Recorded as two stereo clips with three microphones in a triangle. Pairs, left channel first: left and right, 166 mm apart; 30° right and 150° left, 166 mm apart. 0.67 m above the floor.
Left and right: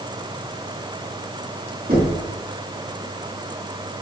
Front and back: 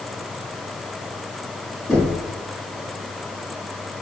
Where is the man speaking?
No man speaking in this recording.